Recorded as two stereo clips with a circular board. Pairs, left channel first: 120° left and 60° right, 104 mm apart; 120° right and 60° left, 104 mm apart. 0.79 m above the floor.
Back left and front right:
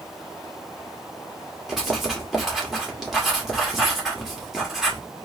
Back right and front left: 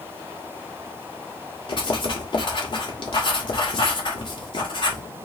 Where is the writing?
145° right, 1.7 m.